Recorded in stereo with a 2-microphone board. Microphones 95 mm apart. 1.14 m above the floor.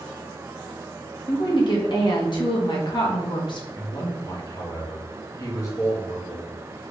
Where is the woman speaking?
55° left (ahead or behind), 1.3 m.